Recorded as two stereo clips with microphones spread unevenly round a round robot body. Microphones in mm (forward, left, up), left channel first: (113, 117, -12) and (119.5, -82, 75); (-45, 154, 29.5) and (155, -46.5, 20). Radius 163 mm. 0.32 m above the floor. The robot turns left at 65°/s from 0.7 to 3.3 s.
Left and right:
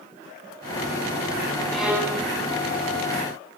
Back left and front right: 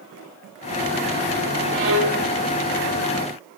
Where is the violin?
10° left, 0.9 m; by 2.2 s 25° right, 0.9 m.